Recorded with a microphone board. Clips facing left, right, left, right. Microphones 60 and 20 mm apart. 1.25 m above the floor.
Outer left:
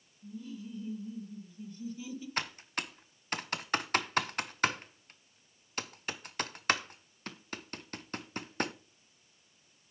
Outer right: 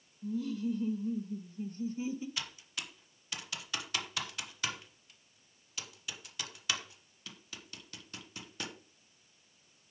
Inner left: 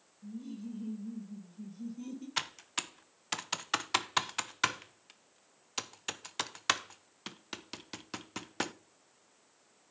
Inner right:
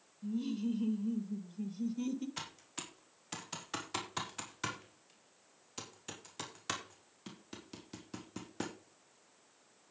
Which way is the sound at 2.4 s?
45° left (ahead or behind).